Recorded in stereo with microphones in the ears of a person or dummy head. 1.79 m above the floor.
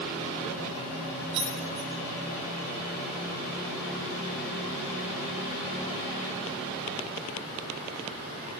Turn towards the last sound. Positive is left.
turn(degrees=-65)  # may be behind; listen again after turning